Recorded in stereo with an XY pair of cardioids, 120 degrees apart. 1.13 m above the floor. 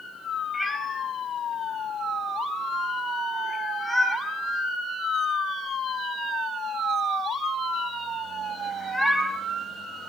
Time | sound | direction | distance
0.5 | a cat meowing | straight ahead | 4 m